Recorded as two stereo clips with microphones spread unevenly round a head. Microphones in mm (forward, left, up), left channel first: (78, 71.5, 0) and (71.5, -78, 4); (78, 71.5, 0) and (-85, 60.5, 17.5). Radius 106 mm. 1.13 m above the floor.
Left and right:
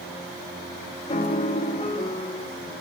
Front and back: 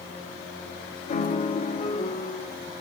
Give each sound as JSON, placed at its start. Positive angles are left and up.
{"t": 1.1, "sound": "a piano", "azimuth_deg": 45, "distance_m": 0.7}